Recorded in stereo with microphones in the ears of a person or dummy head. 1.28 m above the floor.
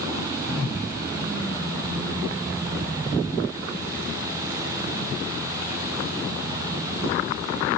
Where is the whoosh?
25° left (ahead or behind), 2 m.